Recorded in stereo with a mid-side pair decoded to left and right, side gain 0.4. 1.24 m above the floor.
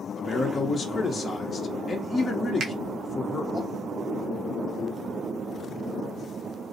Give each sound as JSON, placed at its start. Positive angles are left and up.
{"t": 0.1, "sound": "a man speaking", "azimuth_deg": 40, "distance_m": 0.6}
{"t": 2.6, "sound": "a finger snap", "azimuth_deg": -70, "distance_m": 0.6}